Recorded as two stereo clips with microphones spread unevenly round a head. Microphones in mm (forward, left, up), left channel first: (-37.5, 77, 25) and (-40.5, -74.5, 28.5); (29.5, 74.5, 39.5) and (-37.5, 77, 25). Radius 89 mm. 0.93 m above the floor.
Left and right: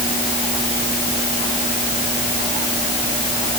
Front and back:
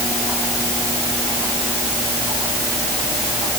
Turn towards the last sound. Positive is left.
No sound to turn to.